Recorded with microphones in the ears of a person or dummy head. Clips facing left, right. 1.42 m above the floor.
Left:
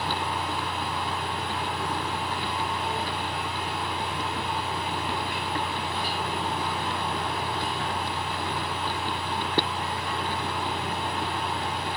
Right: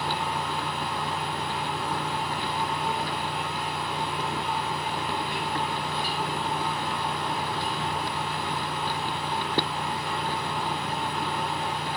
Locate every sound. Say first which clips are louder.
0.0 s a fan: even; 35° right (ahead or behind), 1.1 m